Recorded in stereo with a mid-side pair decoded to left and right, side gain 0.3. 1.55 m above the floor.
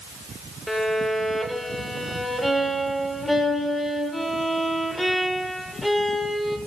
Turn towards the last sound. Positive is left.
turn(degrees=15)